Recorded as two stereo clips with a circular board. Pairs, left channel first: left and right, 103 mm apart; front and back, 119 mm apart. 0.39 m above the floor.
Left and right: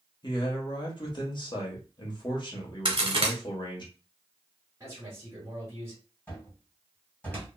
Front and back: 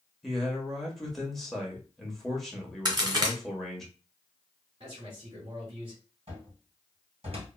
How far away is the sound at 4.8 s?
About 2.0 m.